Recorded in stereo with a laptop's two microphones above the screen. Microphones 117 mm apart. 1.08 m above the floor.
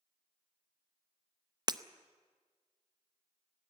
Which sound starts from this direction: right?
Breaking glass, at 1.7 s.